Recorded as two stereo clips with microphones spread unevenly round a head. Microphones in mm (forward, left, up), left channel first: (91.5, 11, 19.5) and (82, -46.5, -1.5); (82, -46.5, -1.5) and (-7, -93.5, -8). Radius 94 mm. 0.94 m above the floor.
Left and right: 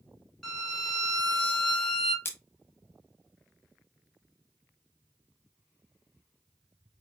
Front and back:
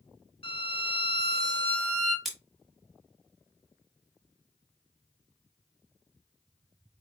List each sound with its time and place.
0.4 s a violin: straight ahead, 1.9 m
2.2 s scissors: 115° left, 1.2 m